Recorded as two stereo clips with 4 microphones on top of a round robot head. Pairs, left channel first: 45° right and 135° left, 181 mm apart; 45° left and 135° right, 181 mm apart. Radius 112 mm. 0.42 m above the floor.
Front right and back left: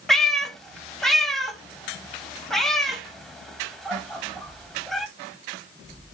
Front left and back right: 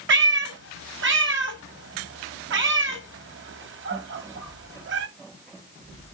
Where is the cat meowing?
135° right, 1.8 m.